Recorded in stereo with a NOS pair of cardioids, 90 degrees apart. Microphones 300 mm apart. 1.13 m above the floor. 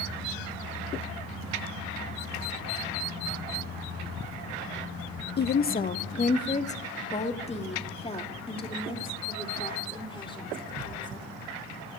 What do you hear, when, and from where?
5.4 s a woman speaking: 35° left, 0.7 m; by 11.3 s 15° left, 4 m